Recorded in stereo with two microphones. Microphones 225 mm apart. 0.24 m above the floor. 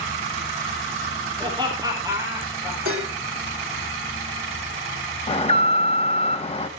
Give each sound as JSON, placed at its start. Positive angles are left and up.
{"t": 1.4, "sound": "laughter", "side_deg": -20, "distance_m": 7.5}
{"t": 2.9, "sound": "dishes clattering", "side_deg": -75, "distance_m": 2.5}
{"t": 5.3, "sound": "an alarm", "side_deg": 30, "distance_m": 1.0}